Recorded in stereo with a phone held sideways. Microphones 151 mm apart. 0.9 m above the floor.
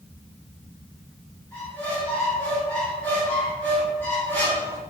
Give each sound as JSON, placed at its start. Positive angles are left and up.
{"t": 1.5, "sound": "a squeak", "side_deg": 10, "distance_m": 1.7}